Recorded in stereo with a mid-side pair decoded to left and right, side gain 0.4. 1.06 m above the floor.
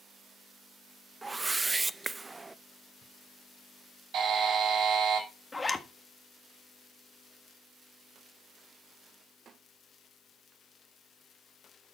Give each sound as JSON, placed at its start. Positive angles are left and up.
{"t": 1.2, "sound": "a whoosh", "azimuth_deg": -25, "distance_m": 0.5}
{"t": 4.1, "sound": "a buzzer", "azimuth_deg": -65, "distance_m": 6.0}
{"t": 5.5, "sound": "a zipper", "azimuth_deg": 25, "distance_m": 1.6}